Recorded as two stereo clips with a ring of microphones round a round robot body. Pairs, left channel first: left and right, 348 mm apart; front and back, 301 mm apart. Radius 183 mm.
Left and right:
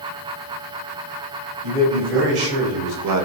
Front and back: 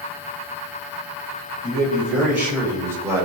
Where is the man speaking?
95° right, 3.5 m; by 3.3 s 105° right, 1.2 m.